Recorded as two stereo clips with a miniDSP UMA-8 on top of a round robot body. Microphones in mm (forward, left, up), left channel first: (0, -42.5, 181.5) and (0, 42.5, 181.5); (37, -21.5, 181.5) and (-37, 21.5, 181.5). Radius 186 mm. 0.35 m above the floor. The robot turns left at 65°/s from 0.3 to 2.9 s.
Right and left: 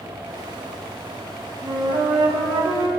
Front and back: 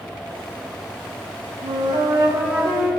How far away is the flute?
About 5.5 m.